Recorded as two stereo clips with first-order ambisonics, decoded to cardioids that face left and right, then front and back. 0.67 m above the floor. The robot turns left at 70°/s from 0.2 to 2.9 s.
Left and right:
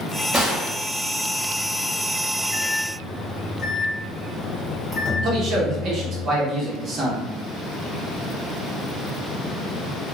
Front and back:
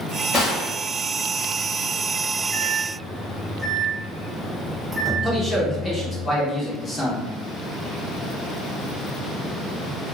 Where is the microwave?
130° left, 0.7 m; by 6.2 s 105° left, 0.7 m.